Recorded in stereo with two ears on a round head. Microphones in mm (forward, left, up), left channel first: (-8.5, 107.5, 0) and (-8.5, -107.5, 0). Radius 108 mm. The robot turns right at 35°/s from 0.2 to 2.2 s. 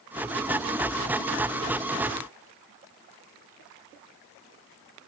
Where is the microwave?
I don't hear a microwave.